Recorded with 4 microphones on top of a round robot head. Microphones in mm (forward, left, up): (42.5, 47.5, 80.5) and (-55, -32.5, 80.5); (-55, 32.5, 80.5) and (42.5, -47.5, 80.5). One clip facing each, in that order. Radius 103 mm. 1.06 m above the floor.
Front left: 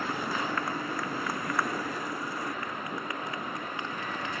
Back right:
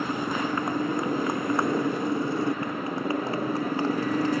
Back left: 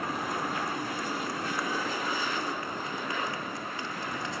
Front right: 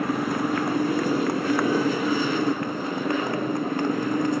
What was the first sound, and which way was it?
A motorcycle, 65° right.